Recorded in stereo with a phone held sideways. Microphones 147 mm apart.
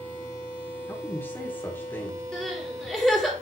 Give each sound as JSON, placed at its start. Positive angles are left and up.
{"t": 0.9, "sound": "a man speaking", "side_deg": 15, "distance_m": 4.0}
{"t": 2.3, "sound": "crying", "side_deg": 5, "distance_m": 4.0}